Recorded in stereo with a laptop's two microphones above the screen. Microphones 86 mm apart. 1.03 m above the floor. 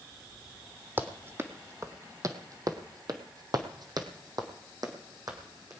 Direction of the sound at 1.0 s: 25° right (ahead or behind).